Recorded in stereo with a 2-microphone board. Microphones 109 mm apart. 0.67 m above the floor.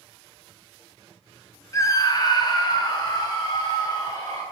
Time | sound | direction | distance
1.7 | a scream | 30° left (ahead or behind) | 0.5 m